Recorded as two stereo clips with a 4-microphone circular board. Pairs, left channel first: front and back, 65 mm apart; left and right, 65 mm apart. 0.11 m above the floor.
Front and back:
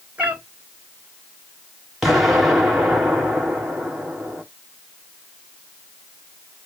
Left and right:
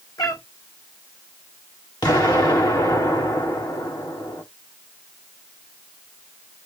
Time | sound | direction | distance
0.2 | a cat meowing | 110° left | 1.9 m
2.0 | an explosion | 95° left | 5.5 m